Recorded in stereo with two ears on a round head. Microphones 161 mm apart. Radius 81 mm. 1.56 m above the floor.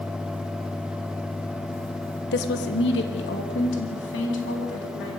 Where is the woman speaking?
60° left (ahead or behind), 1.4 m; by 5.2 s 70° left (ahead or behind), 5 m.